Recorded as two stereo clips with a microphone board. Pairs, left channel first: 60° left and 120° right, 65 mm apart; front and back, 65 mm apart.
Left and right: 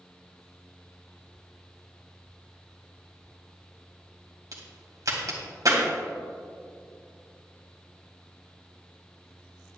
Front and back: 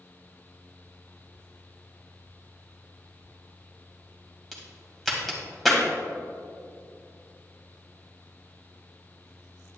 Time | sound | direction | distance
4.5 | a crack | 85° right | 2 m